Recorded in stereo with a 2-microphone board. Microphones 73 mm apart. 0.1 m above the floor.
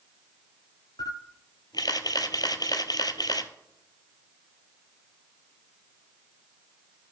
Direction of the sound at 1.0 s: 65° left (ahead or behind).